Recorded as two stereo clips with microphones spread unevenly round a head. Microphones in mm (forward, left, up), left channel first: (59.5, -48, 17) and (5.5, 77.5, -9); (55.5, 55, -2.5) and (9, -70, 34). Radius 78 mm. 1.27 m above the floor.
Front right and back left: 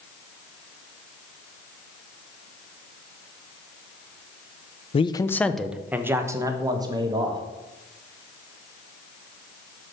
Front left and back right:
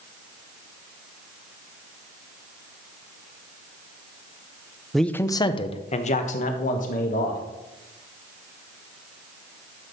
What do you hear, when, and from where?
4.9 s a man speaking: 15° right, 0.7 m; by 7.4 s 55° left, 2.5 m